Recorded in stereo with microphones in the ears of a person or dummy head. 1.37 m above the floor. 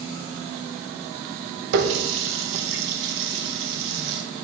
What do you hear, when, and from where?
1.7 s a running tap: 70° right (ahead or behind), 0.9 m